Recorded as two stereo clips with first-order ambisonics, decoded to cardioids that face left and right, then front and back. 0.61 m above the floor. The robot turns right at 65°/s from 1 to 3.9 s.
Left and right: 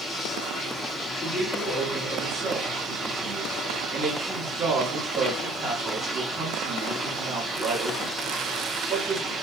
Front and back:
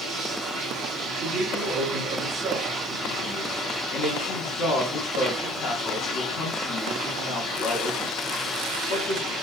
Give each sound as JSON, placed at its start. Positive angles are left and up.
{"t": 0.0, "sound": "running water", "azimuth_deg": 145, "distance_m": 1.9}
{"t": 1.2, "sound": "a man speaking", "azimuth_deg": 155, "distance_m": 1.1}